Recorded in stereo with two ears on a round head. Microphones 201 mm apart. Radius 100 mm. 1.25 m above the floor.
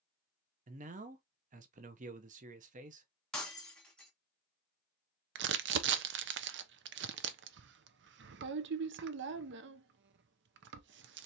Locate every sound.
0.7 s a man speaking: 35° right (ahead or behind), 0.7 m
3.3 s breaking glass: 5° left (ahead or behind), 1.2 m
5.3 s crumpling: 55° right (ahead or behind), 0.6 m